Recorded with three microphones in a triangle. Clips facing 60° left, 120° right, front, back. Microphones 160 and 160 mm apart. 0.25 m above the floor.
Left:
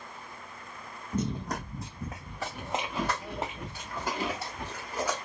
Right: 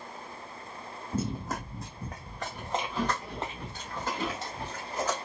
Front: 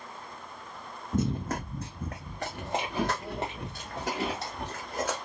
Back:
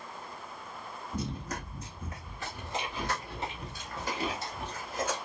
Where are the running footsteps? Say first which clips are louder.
Left 1 dB, front 8 dB; 40° right, 0.8 m; by 5.2 s 20° right, 3.5 m.